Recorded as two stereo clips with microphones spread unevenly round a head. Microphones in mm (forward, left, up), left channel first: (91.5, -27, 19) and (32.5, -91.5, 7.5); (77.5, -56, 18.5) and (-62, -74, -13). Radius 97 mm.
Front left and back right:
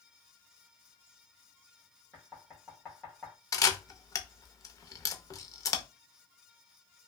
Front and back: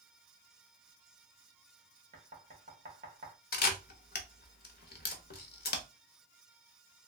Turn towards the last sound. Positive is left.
turn(degrees=-10)